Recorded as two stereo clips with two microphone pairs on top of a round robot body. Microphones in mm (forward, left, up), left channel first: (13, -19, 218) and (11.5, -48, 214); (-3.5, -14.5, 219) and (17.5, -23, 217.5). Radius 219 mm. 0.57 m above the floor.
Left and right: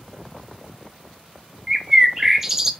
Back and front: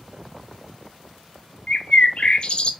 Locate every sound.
1.7 s a bird: 160° right, 0.6 m